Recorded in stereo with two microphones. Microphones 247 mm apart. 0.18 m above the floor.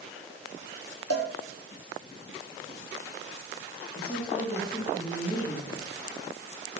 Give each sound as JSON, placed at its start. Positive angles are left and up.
{"t": 1.1, "sound": "a cowbell", "side_deg": 85, "distance_m": 1.5}
{"t": 4.0, "sound": "a woman speaking", "side_deg": 35, "distance_m": 6.5}